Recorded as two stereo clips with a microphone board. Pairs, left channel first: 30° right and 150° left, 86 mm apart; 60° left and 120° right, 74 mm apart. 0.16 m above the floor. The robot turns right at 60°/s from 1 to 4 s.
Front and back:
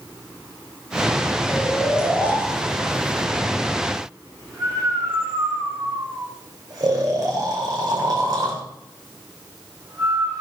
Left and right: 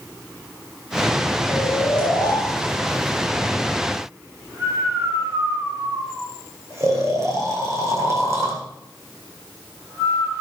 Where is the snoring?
40° left, 5 m; by 10.4 s 170° right, 5 m.